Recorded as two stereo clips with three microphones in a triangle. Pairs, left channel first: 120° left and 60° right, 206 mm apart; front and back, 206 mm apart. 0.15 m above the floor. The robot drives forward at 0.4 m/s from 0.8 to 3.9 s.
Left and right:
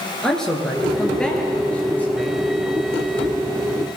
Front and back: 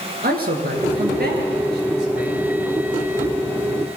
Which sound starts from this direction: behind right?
A man speaking, at 0.2 s.